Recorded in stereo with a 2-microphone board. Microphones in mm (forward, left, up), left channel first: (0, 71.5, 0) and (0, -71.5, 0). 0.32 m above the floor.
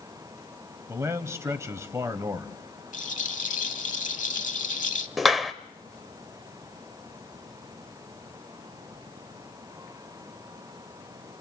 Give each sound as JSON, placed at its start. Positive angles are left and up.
{"t": 0.9, "sound": "a man speaking", "side_deg": -20, "distance_m": 1.4}
{"t": 2.9, "sound": "a rattle", "side_deg": 65, "distance_m": 0.8}
{"t": 5.2, "sound": "a clap", "side_deg": 0, "distance_m": 0.8}